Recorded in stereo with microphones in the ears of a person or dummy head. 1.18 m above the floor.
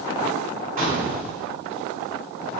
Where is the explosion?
40° right (ahead or behind), 1.0 m.